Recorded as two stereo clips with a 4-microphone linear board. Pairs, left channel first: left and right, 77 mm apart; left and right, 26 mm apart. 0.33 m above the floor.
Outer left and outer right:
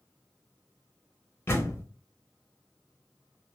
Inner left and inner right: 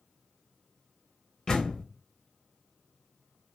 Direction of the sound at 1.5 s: 35° left (ahead or behind).